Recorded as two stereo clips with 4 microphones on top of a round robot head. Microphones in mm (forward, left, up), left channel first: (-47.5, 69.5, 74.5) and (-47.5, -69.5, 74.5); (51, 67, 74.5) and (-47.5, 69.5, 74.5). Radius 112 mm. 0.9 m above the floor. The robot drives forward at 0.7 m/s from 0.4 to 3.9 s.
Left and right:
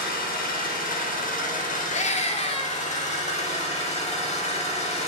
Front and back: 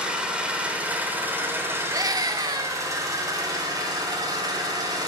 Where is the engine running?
100° left, 4 m; by 5.1 s 130° left, 5 m.